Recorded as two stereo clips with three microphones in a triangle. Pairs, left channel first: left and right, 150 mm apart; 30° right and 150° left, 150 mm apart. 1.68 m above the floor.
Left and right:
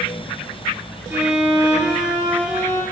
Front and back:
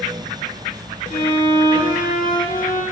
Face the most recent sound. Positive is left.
turn(degrees=-15)